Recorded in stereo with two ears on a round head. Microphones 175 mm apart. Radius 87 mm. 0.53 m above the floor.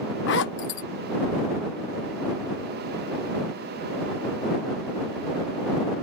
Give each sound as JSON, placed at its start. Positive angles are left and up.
{"t": 0.3, "sound": "a zipper", "side_deg": 60}